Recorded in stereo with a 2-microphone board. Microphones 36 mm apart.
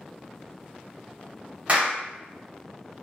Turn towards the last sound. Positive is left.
turn(degrees=-35)  # may be behind; listen again after turning